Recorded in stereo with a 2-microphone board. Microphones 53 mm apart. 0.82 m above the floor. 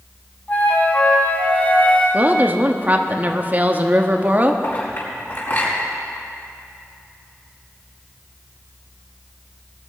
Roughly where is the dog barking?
I don't hear a dog barking.